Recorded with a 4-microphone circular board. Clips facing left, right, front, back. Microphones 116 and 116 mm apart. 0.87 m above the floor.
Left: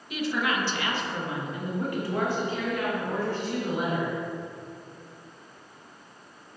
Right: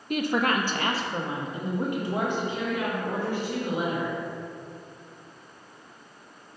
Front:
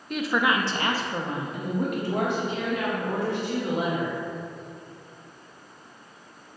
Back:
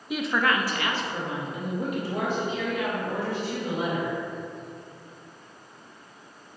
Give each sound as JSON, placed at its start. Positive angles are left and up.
{"t": 0.1, "sound": "a woman speaking", "azimuth_deg": -100, "distance_m": 0.7}